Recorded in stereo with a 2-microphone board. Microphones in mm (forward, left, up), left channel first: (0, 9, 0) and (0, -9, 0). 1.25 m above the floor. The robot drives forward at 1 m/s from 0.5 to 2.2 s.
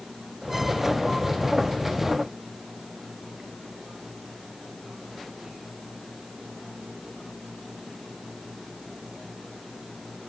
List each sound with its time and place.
Only background noise.